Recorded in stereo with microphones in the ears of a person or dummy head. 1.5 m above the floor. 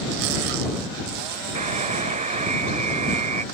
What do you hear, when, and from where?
1.6 s a buzzer: 35° right (ahead or behind)